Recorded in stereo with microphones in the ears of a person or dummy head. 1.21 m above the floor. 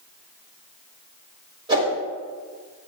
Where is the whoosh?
25° right (ahead or behind), 4 m.